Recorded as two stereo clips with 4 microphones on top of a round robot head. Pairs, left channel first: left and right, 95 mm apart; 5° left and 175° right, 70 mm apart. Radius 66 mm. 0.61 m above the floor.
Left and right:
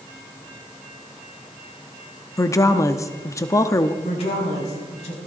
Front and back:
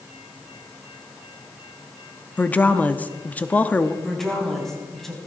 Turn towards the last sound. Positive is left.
turn(degrees=90)